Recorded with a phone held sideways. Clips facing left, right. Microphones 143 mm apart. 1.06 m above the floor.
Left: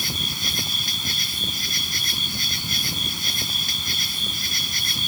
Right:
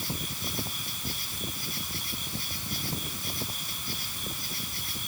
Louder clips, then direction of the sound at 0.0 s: Left 3 dB; 85° left.